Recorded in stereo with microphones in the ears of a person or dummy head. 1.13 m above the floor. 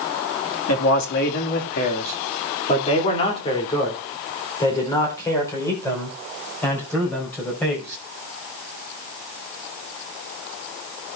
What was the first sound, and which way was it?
A man speaking, 75° left (ahead or behind).